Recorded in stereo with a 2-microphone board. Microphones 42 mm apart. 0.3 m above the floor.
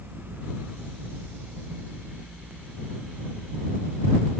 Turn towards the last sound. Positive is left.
No sound to turn to.